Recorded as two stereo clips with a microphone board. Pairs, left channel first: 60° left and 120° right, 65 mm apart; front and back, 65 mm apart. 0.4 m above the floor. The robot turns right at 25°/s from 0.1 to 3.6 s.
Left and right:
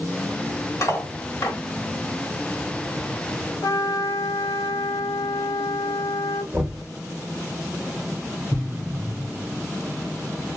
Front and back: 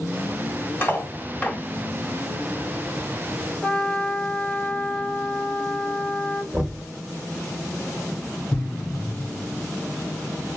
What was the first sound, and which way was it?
Cutlery clinking, 50° left.